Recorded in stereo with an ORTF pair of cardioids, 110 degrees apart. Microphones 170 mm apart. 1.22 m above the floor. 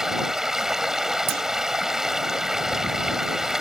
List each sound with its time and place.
0.0 s running water: 5° right
1.3 s a clunk: 70° right